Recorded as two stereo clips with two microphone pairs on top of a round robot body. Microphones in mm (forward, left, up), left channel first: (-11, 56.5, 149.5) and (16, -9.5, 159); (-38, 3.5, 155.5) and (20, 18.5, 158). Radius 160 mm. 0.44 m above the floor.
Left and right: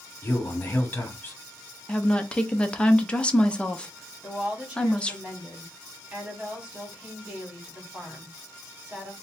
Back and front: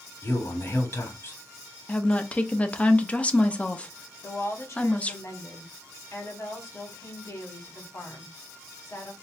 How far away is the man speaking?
About 1.9 m.